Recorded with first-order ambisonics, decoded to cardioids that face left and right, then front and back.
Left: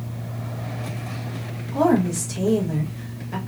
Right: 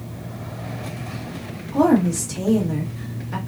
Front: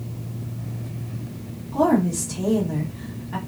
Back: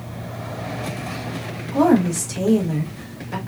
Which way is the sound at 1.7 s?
165° right.